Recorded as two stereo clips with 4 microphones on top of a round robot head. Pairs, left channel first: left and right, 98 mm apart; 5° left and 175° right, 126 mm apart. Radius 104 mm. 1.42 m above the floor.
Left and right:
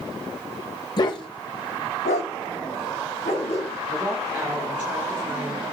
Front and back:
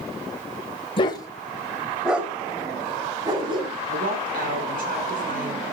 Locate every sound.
1.0 s a dog barking: 50° left, 1.8 m; by 3.8 s 135° left, 3.5 m
3.9 s a woman speaking: 170° right, 6.5 m